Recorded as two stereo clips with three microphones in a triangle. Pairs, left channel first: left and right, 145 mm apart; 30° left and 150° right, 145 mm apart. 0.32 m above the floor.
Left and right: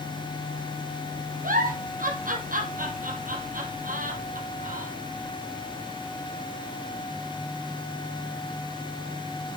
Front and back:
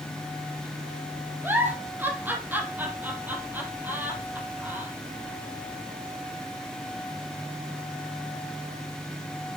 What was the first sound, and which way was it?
A giggle, 70° right.